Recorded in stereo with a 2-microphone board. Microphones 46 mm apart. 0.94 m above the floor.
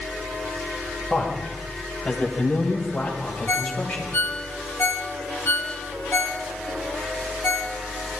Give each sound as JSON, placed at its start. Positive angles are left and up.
{"t": 1.1, "sound": "a man speaking", "side_deg": 15, "distance_m": 6.0}
{"t": 3.5, "sound": "a ringtone", "side_deg": 55, "distance_m": 1.6}